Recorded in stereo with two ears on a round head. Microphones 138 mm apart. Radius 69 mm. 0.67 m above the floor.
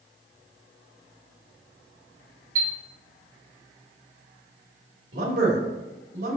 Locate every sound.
2.5 s a chime: 85° right, 3 m
5.1 s a man speaking: 70° right (ahead or behind), 2.5 m